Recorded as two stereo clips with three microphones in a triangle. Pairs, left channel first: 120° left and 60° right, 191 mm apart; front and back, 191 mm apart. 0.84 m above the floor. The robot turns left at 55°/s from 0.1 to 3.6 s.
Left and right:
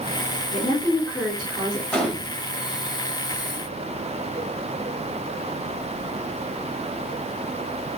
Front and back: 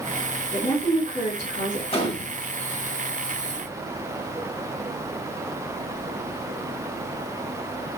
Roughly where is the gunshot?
Ahead left.